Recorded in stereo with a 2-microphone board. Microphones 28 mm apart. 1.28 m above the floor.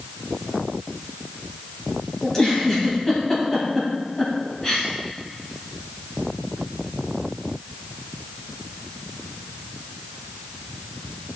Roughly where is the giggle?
Centre.